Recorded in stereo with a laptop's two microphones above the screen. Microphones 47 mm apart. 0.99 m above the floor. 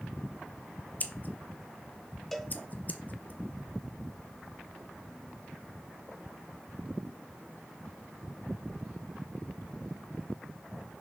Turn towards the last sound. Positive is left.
turn(degrees=5)  # may be behind; listen again after turning